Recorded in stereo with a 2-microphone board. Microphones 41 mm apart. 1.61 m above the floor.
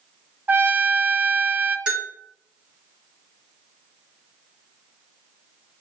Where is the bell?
20° right (ahead or behind), 1.8 m.